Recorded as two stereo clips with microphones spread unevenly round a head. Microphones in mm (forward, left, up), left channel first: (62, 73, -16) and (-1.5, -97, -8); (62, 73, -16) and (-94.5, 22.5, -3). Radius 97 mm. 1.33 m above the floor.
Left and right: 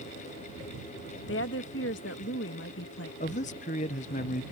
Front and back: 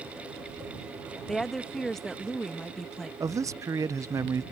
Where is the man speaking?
125° left.